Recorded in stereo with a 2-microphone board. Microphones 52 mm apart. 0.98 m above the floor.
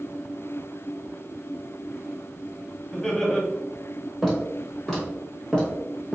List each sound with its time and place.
2.9 s laughter: 15° left (ahead or behind), 1.0 m
4.2 s footsteps: centre (ahead or behind), 1.7 m; by 6.2 s 20° left (ahead or behind), 1.1 m